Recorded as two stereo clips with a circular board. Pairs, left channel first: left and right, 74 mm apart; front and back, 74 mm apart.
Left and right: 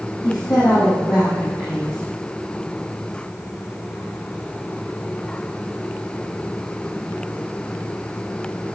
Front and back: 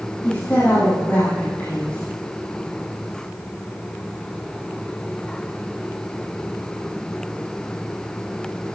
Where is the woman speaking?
65° left, 4 m.